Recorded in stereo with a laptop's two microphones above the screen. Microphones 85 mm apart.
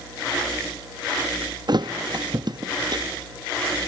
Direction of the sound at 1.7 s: 55° right (ahead or behind).